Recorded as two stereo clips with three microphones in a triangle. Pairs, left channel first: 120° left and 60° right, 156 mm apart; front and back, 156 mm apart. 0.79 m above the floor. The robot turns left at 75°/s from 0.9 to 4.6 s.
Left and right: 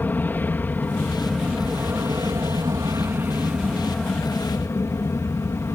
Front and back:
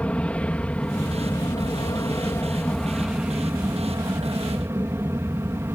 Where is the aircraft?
65° left; by 5.8 s 150° left.